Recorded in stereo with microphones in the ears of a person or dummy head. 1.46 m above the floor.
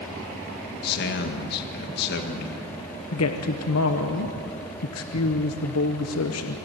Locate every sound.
0.8 s a man speaking: 60° left (ahead or behind), 1.8 m
3.1 s a woman speaking: 75° left (ahead or behind), 1.1 m